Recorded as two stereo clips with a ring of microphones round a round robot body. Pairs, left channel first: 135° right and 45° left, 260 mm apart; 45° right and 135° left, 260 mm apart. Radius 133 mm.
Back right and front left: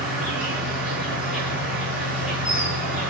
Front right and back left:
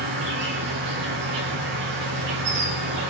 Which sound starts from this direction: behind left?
An insect, at 0.0 s.